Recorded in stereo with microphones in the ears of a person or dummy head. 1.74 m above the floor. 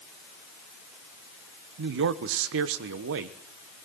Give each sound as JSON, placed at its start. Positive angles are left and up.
{"t": 1.8, "sound": "a man speaking", "side_deg": -75, "distance_m": 1.2}